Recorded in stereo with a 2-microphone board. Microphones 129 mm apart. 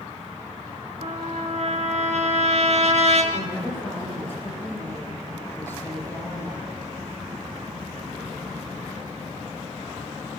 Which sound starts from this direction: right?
A trumpet, at 1.0 s.